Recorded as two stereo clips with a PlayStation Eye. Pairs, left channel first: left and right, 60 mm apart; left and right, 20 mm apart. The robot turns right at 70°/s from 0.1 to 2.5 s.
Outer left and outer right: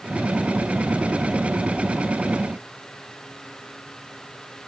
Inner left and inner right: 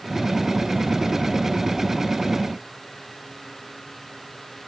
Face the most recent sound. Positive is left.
No sound to turn to.